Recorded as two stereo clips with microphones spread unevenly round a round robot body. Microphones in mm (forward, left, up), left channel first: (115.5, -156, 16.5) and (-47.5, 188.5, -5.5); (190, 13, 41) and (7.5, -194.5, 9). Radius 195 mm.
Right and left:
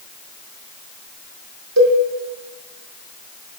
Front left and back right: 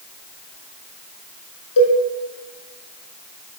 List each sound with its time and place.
1.8 s a cowbell: 65° left, 4.5 m